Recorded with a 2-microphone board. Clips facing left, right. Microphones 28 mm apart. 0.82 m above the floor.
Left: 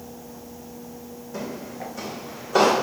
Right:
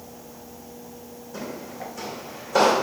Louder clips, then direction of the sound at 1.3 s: Left 1 dB; 10° left (ahead or behind).